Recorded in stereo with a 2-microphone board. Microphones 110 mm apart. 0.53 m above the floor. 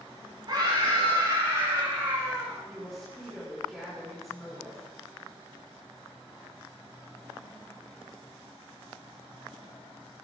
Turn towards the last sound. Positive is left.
turn(degrees=0)  # may be behind; listen again after turning